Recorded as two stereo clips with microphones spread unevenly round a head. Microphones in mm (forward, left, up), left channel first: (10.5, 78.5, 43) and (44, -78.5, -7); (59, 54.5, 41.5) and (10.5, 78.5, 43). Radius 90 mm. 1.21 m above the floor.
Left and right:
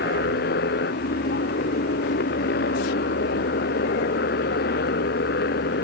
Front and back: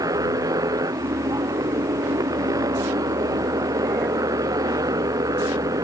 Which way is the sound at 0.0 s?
145° left.